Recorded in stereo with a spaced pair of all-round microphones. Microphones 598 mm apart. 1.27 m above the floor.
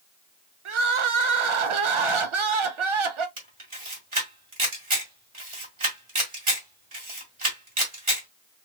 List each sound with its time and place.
0.7 s crying: 55° right (ahead or behind), 0.6 m
3.4 s a camera shutter: 55° right (ahead or behind), 1.6 m